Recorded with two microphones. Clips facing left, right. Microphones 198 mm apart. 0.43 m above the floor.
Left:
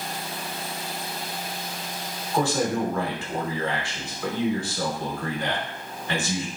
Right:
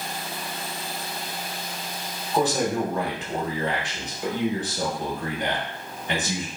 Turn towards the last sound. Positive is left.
turn(degrees=-20)  # may be behind; listen again after turning